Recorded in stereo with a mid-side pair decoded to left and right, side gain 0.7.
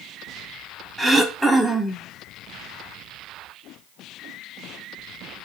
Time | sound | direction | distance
1.0 | throat clearing | 10° right | 0.8 m